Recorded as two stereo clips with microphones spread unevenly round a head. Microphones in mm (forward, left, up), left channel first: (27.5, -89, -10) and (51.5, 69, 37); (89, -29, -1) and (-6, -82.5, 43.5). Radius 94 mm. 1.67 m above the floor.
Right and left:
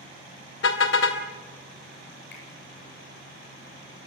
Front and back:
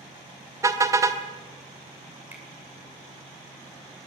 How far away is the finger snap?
About 8 m.